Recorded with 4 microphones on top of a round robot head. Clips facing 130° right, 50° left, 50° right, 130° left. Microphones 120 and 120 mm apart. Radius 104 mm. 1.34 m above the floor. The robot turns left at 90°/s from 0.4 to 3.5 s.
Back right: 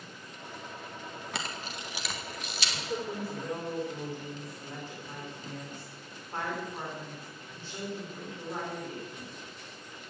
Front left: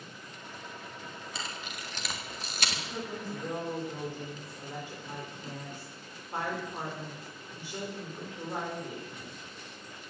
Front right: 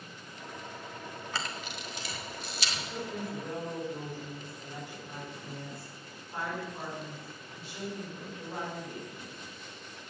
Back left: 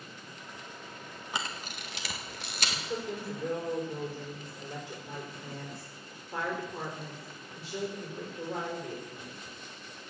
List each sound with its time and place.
1.3 s a camera shutter: 155° right, 2.0 m; by 2.8 s 70° left, 2.0 m
2.7 s a woman speaking: 160° right, 5 m; by 9.4 s 130° left, 5 m